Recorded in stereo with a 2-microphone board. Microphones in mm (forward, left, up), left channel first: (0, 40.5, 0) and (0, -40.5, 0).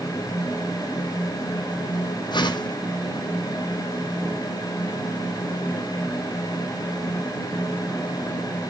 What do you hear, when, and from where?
2.3 s a whoosh: 70° left (ahead or behind), 1.5 m